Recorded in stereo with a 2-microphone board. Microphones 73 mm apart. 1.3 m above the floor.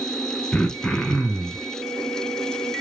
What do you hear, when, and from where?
0.5 s throat clearing: 15° left (ahead or behind), 0.9 m